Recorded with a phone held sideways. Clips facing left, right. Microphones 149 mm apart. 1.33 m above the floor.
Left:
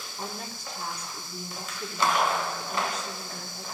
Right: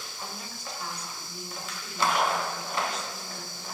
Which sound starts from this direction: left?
A woman speaking, at 0.2 s.